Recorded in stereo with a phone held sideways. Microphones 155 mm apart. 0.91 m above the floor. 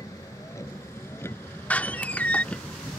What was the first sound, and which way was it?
A vehicle, 20° left (ahead or behind).